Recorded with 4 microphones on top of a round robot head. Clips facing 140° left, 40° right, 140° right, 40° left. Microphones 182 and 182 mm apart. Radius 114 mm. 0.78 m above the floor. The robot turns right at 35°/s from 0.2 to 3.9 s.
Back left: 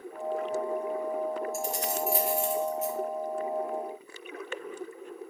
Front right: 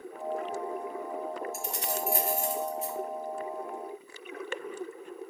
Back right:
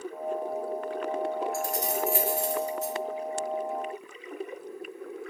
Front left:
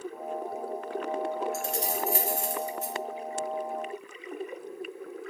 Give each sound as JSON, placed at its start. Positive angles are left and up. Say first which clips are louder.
{"t": 1.5, "sound": "keys jangling", "louder": "back left 3 dB, back right 2 dB", "azimuth_deg": -30, "distance_m": 0.5}